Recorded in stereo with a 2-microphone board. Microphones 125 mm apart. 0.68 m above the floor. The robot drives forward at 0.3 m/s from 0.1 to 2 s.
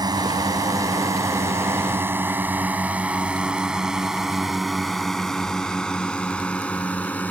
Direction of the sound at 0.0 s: 30° right (ahead or behind).